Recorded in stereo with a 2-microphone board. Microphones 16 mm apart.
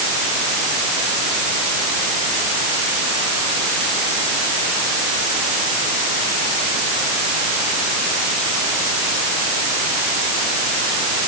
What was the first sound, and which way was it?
Only background noise.